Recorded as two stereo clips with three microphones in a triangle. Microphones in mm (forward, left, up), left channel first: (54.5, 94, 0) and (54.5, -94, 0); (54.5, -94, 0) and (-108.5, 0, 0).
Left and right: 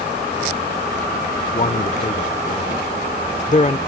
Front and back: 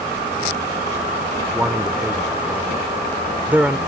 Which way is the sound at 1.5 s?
75° left.